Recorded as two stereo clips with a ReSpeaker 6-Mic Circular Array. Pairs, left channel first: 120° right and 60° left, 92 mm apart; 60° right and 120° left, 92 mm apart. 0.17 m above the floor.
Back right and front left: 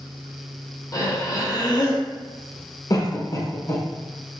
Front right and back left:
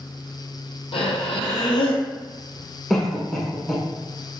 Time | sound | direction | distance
0.9 | breathing | 70° right | 1.1 m
2.9 | a cough | 145° right | 1.4 m